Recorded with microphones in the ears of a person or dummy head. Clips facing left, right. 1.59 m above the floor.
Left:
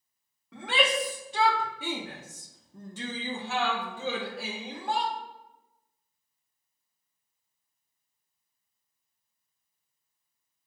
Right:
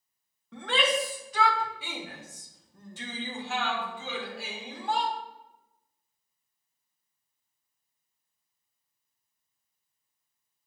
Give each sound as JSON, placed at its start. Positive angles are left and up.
{"t": 0.5, "sound": "a shout", "side_deg": 5, "distance_m": 1.2}